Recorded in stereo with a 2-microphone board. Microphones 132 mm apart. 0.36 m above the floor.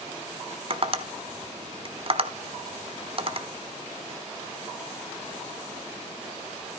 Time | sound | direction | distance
0.7 | tapping | 45° right (ahead or behind) | 0.9 m